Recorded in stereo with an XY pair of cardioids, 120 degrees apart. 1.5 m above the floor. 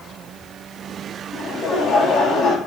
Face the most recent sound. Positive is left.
turn(degrees=45)